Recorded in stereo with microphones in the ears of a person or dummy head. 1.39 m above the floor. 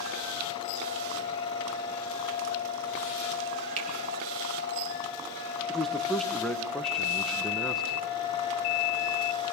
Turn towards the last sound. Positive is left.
turn(degrees=10)  # may be behind; listen again after turning